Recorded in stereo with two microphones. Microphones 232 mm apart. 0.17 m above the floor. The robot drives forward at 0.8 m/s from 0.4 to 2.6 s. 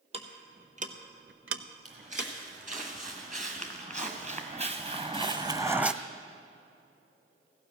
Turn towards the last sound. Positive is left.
turn(degrees=-5)  # may be behind; listen again after turning